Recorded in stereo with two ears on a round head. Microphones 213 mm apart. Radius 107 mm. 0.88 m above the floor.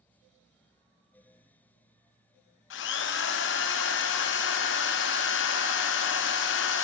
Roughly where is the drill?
Left.